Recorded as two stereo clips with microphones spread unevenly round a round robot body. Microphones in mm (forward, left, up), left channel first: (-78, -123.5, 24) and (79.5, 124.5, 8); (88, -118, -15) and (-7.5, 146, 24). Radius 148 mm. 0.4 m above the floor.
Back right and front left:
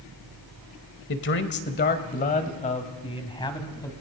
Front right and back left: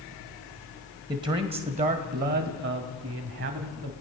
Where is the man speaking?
170° right, 1.9 m; by 3.9 s 160° left, 2.5 m.